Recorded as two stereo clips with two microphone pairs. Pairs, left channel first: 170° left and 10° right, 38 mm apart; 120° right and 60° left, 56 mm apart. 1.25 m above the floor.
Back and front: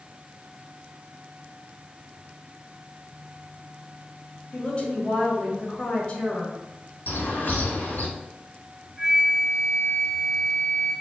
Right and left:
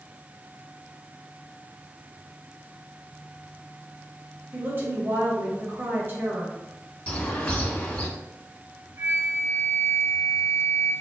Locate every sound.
4.5 s a woman speaking: 100° left, 1.6 m
7.1 s a bird: straight behind, 1.7 m
9.0 s a flute: 70° left, 2 m